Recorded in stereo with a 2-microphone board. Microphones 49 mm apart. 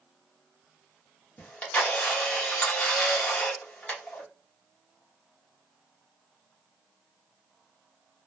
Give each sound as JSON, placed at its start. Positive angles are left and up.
{"t": 1.4, "sound": "a camera shutter", "side_deg": 25, "distance_m": 1.2}